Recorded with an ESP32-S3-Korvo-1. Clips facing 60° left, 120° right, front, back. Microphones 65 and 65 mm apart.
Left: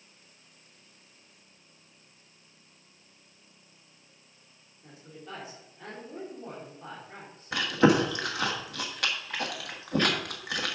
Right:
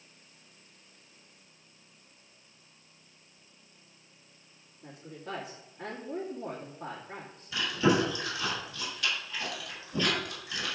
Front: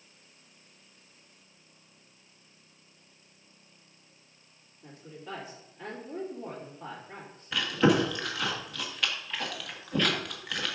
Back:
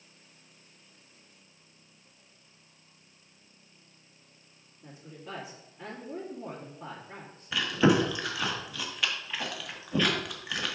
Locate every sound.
4.8 s a woman speaking: 95° right, 2.5 m
7.5 s chewing: 95° left, 1.3 m